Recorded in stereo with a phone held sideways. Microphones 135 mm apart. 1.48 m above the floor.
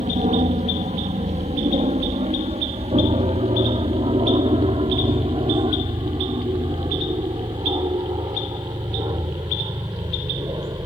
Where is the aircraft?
60° right (ahead or behind); by 10.9 s 30° right (ahead or behind).